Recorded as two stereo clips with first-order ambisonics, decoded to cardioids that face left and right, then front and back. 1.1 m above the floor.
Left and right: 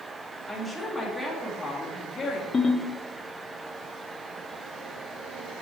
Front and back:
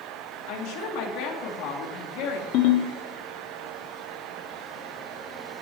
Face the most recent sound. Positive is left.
turn(degrees=20)